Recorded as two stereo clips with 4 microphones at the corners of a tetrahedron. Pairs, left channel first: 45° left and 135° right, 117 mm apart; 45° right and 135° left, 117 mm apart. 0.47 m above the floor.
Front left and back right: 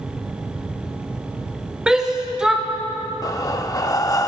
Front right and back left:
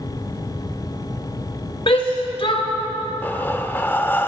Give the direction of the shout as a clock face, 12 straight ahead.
2 o'clock.